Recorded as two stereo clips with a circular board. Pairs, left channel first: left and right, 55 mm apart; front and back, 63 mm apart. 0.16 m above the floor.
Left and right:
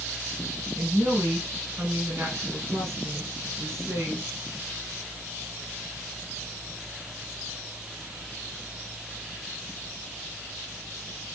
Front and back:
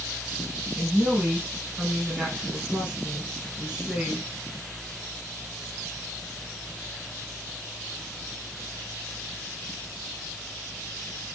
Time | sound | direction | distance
0.8 | a woman speaking | 105° right | 2.5 m